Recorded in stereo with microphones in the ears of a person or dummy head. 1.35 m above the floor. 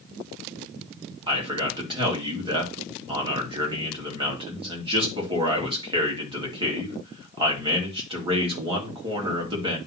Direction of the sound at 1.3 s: 25° right (ahead or behind).